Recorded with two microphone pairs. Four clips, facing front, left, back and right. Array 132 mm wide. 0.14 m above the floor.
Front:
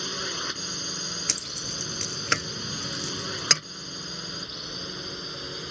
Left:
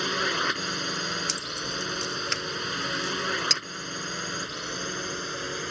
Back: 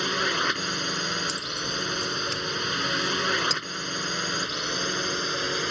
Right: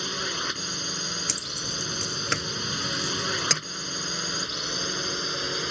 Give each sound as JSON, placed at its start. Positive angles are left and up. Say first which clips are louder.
{"t": 0.0, "sound": "a drone", "louder": "left 5 dB, back 8 dB", "azimuth_deg": 145}
{"t": 1.3, "sound": "keys jangling", "louder": "left 2 dB, back 7 dB", "azimuth_deg": -25}